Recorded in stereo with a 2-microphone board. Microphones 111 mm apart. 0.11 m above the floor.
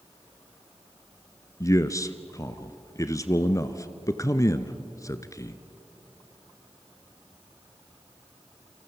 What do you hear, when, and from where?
1.6 s a man speaking: 30° left (ahead or behind), 1.2 m